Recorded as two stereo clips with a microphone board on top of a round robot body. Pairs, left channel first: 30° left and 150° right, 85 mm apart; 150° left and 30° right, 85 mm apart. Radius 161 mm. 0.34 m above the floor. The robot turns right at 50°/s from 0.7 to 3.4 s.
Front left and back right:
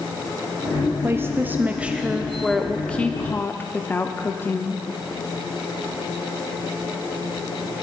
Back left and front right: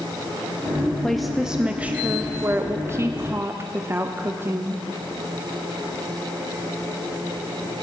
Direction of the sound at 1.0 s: 130° right.